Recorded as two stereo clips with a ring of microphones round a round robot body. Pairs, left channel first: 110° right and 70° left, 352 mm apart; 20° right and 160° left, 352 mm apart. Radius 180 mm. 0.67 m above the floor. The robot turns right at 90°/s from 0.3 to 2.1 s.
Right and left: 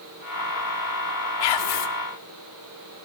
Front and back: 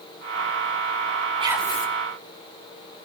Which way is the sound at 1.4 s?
130° right.